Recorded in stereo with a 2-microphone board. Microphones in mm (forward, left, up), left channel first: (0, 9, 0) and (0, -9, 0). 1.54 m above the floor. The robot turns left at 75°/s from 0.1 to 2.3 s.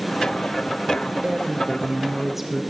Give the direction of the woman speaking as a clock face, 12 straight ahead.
3 o'clock.